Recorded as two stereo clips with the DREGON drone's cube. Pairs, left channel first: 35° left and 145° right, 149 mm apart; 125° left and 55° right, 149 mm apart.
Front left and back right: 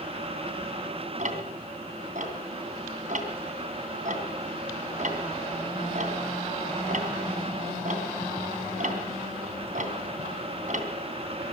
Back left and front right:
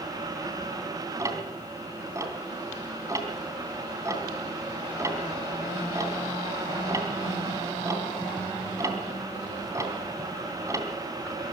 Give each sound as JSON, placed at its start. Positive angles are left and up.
{"t": 1.2, "sound": "ticking", "azimuth_deg": -125, "distance_m": 3.0}